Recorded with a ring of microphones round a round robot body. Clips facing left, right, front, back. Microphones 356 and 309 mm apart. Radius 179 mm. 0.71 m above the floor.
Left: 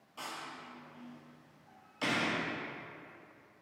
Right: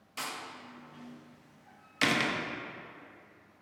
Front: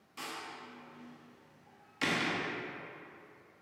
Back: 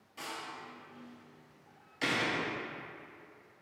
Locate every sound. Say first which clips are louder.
0.2 s a door slam: right 3 dB, even; 70° right, 0.6 m